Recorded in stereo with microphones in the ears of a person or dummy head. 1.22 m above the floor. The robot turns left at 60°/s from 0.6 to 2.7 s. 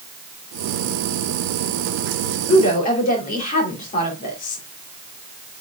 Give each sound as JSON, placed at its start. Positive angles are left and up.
{"t": 2.5, "sound": "a woman speaking", "side_deg": 30, "distance_m": 3.5}